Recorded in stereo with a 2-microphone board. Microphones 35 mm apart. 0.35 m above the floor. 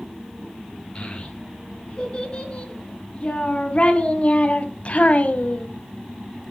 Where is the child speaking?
30° left (ahead or behind), 4 m; by 5.7 s 50° left (ahead or behind), 1.3 m.